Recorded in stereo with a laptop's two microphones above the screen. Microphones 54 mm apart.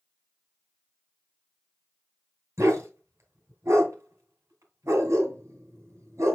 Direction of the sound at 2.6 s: 60° right (ahead or behind).